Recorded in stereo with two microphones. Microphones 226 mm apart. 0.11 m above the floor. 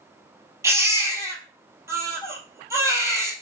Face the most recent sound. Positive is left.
turn(degrees=-15)  # may be behind; listen again after turning